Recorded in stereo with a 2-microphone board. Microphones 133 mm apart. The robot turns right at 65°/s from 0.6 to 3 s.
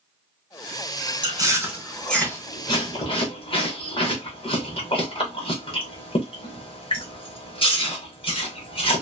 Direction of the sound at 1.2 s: 35° right (ahead or behind).